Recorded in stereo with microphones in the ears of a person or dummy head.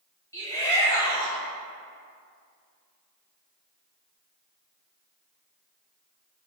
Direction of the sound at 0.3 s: 15° left (ahead or behind).